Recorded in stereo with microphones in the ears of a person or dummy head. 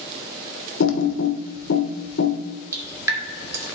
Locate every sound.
0.8 s typing on a keyboard: 75° left (ahead or behind), 1.0 m
2.7 s dripping: 15° right (ahead or behind), 1.6 m